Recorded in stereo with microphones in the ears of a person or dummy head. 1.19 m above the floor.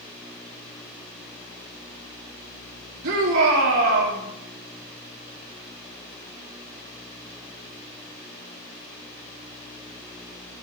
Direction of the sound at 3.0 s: 60° right (ahead or behind).